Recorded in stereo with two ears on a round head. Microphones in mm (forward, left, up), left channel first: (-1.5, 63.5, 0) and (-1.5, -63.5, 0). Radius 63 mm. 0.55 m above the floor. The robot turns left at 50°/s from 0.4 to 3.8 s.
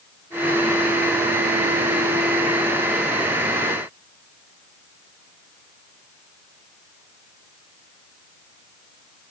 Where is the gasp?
I don't hear a gasp.